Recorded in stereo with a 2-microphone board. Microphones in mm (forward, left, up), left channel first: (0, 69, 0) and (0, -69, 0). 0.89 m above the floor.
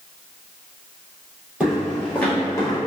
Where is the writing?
No writing in this recording.